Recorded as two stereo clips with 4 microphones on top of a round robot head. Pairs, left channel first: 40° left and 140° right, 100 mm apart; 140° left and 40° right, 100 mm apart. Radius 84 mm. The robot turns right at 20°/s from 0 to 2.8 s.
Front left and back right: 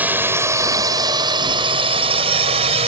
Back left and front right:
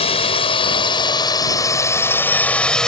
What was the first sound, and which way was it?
A drone, 150° left.